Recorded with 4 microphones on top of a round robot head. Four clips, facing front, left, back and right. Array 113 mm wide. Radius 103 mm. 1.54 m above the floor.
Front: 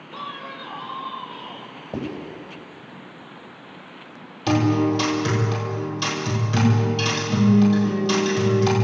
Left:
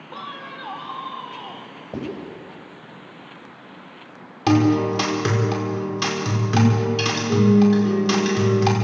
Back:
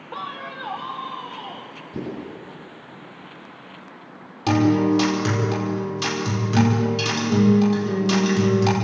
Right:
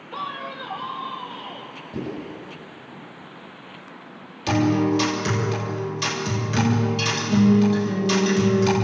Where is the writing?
45° left, 9 m.